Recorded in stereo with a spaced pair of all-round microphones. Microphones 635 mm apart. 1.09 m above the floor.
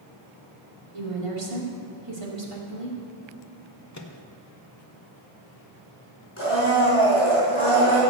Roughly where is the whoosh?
No whoosh in this recording.